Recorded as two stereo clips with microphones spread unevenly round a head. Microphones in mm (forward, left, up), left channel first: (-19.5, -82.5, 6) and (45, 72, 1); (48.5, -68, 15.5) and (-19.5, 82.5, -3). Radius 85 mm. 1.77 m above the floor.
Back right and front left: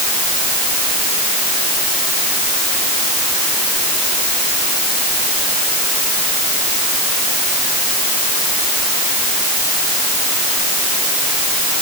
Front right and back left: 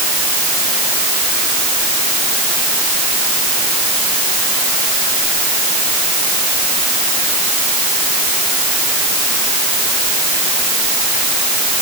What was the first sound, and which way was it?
Only background noise.